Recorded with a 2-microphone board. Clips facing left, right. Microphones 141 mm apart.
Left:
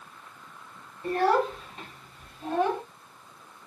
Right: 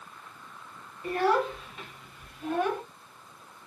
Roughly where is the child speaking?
Left.